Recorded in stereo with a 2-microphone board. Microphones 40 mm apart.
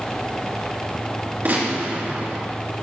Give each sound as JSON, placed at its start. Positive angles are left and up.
{"t": 1.4, "sound": "a gunshot", "side_deg": -50, "distance_m": 3.0}